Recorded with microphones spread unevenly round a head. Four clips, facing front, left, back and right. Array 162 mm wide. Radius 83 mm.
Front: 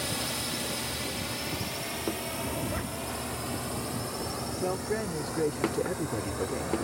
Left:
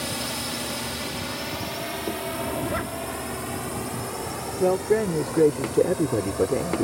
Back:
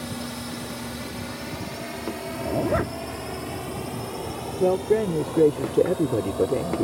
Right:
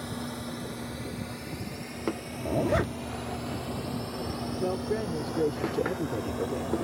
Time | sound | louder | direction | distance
0.0 | a drone | left 4 dB, back 2 dB | 80° left | ?
2.5 | a zipper | right 5 dB, back 13 dB | 160° right | ?
4.6 | a man speaking | left 10 dB, back 12 dB | 145° left | ?